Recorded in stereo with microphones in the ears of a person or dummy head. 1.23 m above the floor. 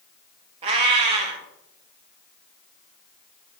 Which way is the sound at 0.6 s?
30° right (ahead or behind).